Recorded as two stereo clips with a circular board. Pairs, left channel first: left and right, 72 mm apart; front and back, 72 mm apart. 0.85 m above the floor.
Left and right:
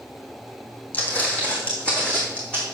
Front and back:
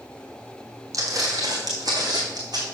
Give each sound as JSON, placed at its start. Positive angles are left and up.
{"t": 0.9, "sound": "footsteps", "azimuth_deg": 150, "distance_m": 1.8}